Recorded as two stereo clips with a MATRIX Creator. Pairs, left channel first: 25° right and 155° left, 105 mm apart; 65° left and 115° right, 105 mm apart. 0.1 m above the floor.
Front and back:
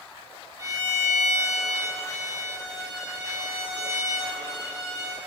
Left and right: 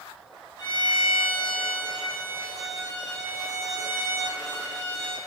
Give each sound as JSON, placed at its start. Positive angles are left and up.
{"t": 0.6, "sound": "a violin", "azimuth_deg": 110, "distance_m": 1.6}